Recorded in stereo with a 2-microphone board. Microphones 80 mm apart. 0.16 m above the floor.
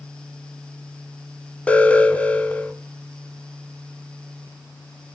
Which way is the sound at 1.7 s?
15° left (ahead or behind).